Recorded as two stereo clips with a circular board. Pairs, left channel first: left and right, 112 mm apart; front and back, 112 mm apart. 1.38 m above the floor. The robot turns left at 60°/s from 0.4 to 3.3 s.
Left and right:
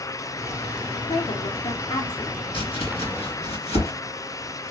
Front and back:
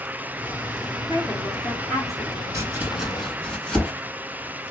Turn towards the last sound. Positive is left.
turn(degrees=80)